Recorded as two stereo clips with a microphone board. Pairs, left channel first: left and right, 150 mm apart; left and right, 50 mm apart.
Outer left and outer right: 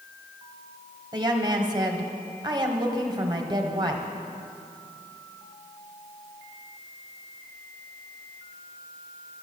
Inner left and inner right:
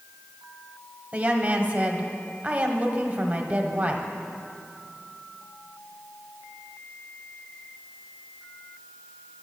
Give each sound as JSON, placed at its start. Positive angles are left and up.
{"t": 1.1, "sound": "a woman speaking", "side_deg": -30, "distance_m": 1.1}